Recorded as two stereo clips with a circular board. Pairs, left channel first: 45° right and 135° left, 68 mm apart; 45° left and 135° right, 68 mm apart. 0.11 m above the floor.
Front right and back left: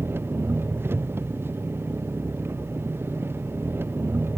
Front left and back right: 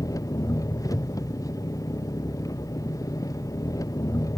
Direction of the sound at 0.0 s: 80° left.